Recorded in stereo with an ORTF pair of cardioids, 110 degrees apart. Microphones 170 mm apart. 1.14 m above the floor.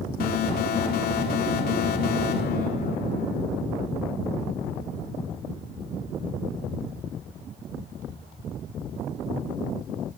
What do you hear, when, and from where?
0.2 s an alarm: 70° left, 2.5 m